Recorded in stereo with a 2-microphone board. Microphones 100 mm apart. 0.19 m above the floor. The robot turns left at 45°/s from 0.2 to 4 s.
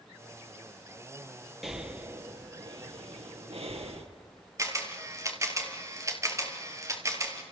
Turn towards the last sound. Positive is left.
turn(degrees=-30)  # may be behind; listen again after turning